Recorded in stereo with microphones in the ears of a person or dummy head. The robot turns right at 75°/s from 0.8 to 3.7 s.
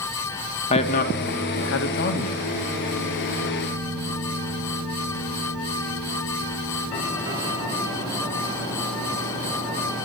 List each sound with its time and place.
0.7 s a man speaking: 35° left (ahead or behind), 1.9 m; by 2.4 s 20° left (ahead or behind), 1.9 m